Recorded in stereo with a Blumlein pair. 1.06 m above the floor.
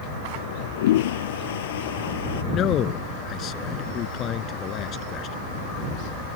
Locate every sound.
0.3 s a toilet flushing: 55° left
2.5 s a man speaking: 30° left